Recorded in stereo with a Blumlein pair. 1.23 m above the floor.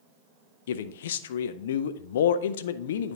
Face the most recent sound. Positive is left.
turn(degrees=60)